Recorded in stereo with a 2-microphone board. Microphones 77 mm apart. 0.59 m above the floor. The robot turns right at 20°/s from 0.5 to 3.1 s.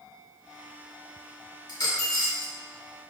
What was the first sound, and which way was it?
A dropped coin, 65° left (ahead or behind).